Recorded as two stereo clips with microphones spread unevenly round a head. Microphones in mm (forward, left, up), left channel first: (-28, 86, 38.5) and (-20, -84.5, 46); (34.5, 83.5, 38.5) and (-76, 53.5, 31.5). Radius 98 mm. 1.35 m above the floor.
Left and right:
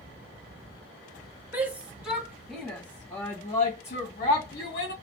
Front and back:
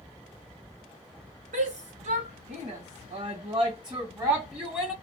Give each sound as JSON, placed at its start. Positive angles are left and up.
{"t": 1.5, "sound": "a shout", "azimuth_deg": -165, "distance_m": 1.9}